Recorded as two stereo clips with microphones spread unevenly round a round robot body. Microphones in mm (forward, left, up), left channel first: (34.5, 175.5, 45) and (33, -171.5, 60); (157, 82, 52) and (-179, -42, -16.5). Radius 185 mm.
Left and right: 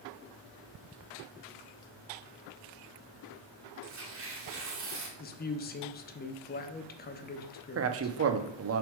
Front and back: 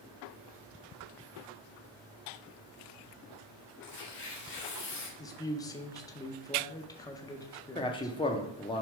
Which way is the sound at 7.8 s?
65° right.